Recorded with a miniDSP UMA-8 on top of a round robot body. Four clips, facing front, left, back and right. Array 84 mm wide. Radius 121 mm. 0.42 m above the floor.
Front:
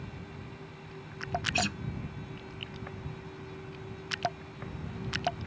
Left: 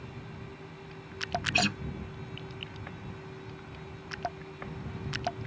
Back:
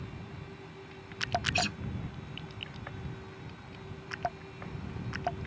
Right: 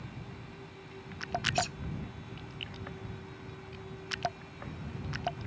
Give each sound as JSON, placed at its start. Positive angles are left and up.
{"t": 1.5, "sound": "a guitar", "azimuth_deg": 85}